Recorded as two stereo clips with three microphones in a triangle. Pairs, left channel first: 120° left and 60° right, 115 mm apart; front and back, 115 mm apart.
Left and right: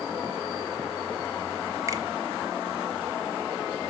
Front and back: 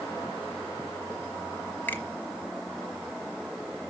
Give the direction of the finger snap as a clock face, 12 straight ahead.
2 o'clock.